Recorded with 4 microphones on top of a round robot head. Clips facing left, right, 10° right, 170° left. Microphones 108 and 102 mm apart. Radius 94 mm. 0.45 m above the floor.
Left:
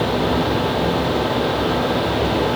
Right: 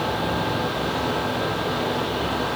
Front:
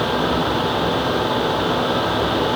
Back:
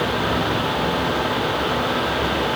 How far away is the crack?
No crack in this recording.